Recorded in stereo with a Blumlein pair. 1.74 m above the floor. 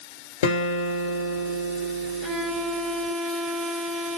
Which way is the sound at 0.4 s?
55° left.